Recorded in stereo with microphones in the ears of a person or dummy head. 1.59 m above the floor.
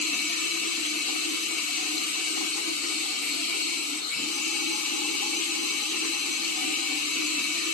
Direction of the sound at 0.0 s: 50° left (ahead or behind).